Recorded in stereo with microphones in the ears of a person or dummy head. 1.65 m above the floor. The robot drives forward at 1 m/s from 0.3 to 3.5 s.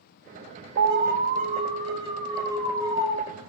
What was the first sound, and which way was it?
An alarm, 75° right (ahead or behind).